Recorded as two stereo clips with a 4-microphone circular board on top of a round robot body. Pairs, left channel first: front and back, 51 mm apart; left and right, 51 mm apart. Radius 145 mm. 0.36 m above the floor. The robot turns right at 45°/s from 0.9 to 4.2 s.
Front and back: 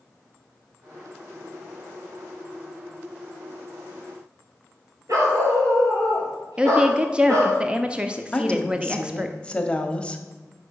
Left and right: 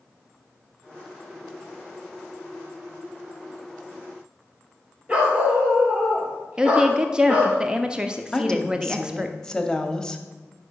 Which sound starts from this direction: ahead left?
A woman speaking, at 8.3 s.